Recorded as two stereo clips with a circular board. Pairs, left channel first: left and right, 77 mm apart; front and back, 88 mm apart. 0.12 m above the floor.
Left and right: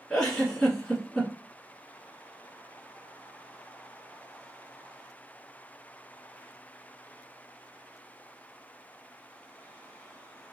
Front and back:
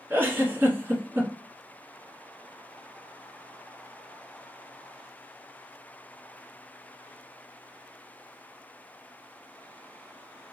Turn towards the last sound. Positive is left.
turn(degrees=155)